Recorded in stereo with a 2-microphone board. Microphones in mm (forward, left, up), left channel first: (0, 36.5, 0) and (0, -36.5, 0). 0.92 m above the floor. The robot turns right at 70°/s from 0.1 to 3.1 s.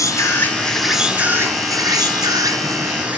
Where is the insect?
125° left, 1.6 m; by 3.2 s 25° right, 1.6 m.